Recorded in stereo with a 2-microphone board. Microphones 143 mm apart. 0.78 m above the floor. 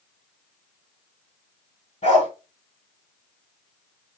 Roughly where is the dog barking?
Left.